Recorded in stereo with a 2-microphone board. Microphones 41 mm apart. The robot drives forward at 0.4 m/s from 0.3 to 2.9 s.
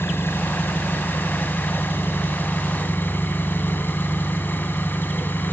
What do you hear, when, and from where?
0.0 s an engine running: 75° left (ahead or behind), 2.5 m; by 5.5 s 55° left (ahead or behind), 3 m